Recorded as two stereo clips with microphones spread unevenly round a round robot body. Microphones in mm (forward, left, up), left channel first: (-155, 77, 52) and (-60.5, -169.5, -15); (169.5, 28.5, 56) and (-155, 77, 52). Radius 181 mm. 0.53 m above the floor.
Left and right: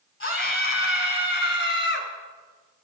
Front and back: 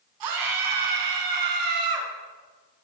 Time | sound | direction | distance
0.2 | a scream | 155° left | 5.5 m